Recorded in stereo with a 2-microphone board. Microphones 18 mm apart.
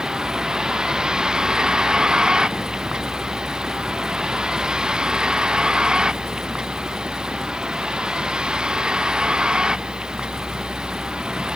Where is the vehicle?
30° right (ahead or behind); by 11.6 s 40° right (ahead or behind).